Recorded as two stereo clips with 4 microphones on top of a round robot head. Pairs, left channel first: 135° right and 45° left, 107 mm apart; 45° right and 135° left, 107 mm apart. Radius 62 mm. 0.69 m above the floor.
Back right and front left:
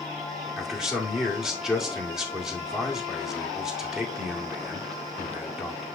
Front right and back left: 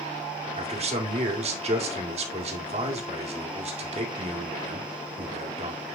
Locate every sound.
0.6 s a man speaking: 130° left, 2 m